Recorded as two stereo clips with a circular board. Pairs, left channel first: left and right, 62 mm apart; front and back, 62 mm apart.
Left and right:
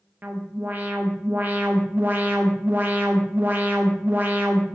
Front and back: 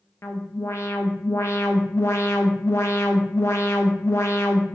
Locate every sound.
0.2 s an alarm: 35° right, 0.5 m